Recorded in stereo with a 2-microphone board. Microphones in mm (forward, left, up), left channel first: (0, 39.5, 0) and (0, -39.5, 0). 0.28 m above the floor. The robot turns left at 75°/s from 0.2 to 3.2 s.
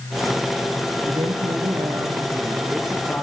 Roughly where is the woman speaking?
Ahead right.